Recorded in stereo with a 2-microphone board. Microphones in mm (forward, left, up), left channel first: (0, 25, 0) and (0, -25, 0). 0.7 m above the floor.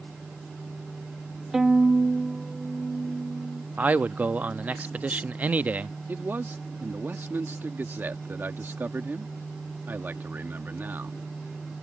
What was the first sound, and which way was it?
A violin, 10° right (ahead or behind).